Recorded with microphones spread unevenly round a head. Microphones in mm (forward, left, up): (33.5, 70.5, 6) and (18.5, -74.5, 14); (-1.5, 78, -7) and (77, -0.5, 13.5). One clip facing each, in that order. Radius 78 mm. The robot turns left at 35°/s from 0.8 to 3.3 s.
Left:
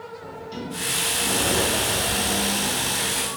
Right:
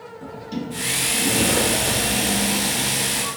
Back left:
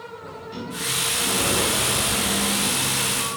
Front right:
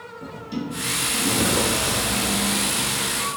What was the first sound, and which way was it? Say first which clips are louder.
A sliding door: right 6 dB, front right 6 dB; 70° right.